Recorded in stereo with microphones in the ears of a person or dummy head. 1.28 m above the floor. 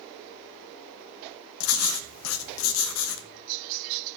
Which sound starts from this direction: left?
Writing, at 1.6 s.